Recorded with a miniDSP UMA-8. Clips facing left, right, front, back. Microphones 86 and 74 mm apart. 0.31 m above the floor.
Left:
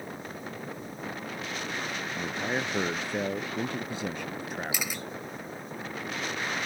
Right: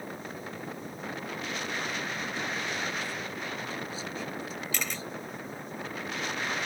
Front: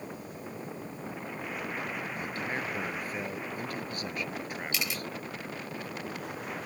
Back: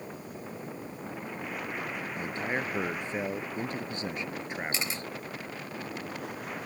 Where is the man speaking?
115° left.